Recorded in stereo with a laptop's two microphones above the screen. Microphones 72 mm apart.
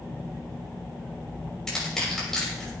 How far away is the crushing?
About 6 m.